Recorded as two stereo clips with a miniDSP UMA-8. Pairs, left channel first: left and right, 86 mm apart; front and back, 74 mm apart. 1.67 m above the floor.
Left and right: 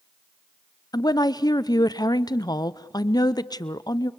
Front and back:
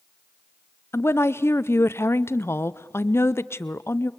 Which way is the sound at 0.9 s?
55° left.